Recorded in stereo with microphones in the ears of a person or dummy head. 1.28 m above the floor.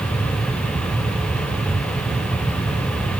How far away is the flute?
No flute in this recording.